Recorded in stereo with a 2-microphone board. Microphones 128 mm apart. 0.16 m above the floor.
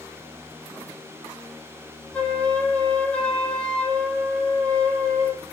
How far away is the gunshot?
I don't hear a gunshot.